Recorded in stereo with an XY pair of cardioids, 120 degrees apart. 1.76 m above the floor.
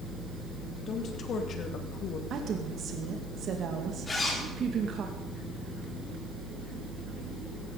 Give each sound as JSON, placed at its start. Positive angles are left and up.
{"t": 0.9, "sound": "a woman speaking", "azimuth_deg": 50, "distance_m": 3.0}
{"t": 2.3, "sound": "a woman speaking", "azimuth_deg": -50, "distance_m": 2.5}
{"t": 4.1, "sound": "a zipper", "azimuth_deg": 25, "distance_m": 5.0}